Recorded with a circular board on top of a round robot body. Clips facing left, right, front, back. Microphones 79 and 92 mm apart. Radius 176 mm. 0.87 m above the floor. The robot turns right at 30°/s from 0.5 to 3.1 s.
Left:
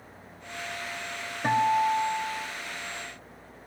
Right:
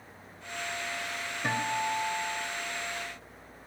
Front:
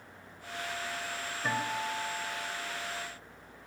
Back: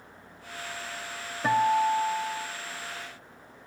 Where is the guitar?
140° left, 1.2 m; by 2.5 s 175° left, 1.2 m.